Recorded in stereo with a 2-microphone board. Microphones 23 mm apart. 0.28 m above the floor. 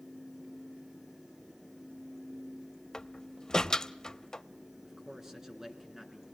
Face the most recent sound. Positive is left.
turn(degrees=-20)  # may be behind; listen again after turning